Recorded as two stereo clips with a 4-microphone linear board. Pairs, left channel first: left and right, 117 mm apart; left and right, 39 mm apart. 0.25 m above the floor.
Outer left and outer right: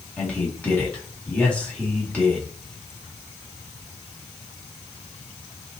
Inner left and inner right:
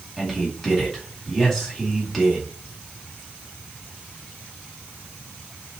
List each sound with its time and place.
0.2 s a man speaking: 10° left (ahead or behind), 1.8 m